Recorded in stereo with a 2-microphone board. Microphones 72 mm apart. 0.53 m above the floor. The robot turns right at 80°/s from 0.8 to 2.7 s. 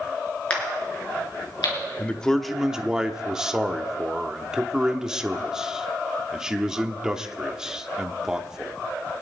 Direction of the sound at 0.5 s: 15° left (ahead or behind).